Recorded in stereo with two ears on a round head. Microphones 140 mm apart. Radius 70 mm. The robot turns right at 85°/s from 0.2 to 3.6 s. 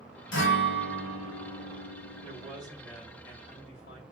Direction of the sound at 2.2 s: 60° right.